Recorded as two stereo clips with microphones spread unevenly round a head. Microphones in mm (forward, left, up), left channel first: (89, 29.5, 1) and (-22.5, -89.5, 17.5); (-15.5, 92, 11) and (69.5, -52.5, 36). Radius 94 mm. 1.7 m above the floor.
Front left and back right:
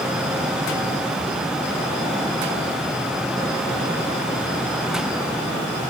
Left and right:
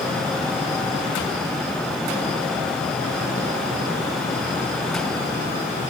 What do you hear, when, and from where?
Only background noise.